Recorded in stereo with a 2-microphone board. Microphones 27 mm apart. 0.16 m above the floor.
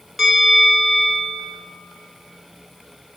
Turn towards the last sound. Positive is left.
turn(degrees=-5)  # may be behind; listen again after turning